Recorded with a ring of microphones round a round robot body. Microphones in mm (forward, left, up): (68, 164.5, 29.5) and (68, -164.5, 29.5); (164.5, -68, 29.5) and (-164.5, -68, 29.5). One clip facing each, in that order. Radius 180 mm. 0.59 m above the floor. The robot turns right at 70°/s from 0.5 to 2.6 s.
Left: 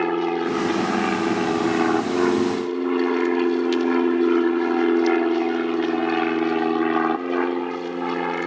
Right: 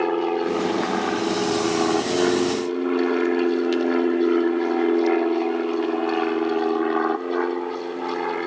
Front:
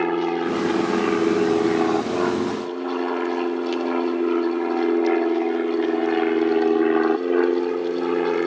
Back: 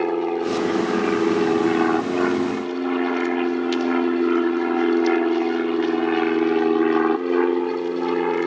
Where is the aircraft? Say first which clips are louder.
Even, even; 55° left; by 8.5 s 100° left.